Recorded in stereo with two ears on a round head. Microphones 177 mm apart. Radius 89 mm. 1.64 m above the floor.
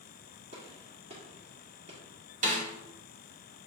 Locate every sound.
0.5 s a gunshot: 35° right (ahead or behind), 1.4 m
2.4 s a snare drum: 40° right (ahead or behind), 1.2 m